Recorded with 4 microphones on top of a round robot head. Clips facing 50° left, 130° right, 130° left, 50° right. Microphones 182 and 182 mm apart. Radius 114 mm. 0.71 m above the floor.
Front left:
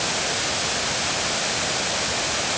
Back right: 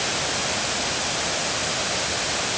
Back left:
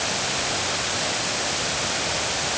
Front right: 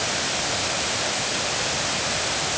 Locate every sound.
Only background noise.